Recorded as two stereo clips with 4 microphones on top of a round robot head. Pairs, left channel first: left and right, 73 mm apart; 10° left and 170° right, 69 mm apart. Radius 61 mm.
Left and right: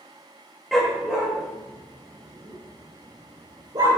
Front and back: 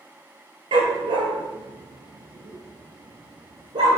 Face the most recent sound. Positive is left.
turn(degrees=-140)